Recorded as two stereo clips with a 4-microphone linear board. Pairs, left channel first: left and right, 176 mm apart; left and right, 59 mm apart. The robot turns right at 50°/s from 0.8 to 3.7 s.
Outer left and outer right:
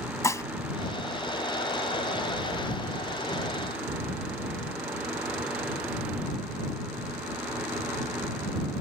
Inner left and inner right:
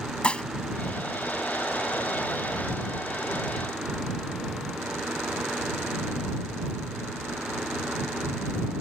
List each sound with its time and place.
0.2 s dishes clattering: 15° left (ahead or behind)